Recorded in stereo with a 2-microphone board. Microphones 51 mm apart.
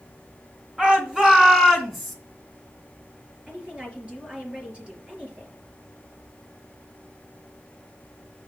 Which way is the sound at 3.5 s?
25° right (ahead or behind).